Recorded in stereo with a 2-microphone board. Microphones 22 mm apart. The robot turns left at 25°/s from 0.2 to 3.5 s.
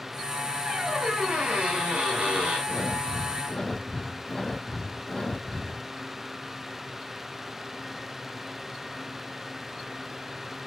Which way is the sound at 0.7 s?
55° right.